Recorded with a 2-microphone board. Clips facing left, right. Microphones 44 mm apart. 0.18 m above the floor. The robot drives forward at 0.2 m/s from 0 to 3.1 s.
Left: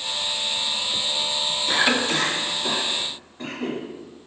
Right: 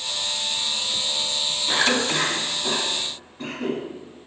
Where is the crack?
I don't hear a crack.